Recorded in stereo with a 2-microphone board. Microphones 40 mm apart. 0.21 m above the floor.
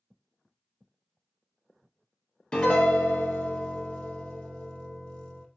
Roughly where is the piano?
Left.